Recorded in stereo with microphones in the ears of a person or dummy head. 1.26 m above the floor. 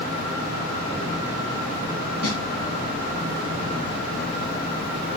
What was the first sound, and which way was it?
A snare drum, 35° left (ahead or behind).